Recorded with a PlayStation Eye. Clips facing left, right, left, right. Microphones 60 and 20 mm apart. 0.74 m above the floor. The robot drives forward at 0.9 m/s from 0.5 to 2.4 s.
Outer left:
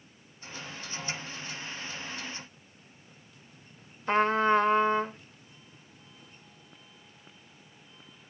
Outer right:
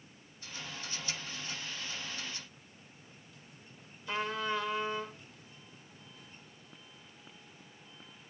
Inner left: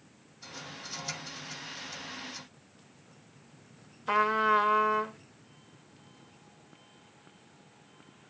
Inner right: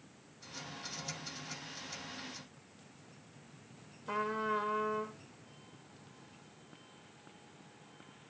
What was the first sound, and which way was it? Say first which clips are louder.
A trumpet: outer left 11 dB, inner left 10 dB; 45° left (ahead or behind).